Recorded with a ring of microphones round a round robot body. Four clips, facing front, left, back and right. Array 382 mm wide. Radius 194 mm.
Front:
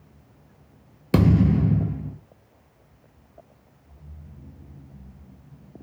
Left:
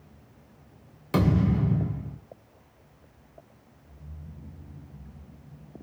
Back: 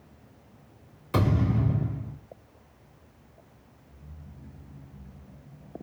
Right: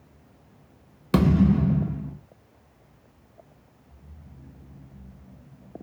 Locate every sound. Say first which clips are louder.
1.1 s a thud: right 4 dB, front 7 dB; 30° right, 0.8 m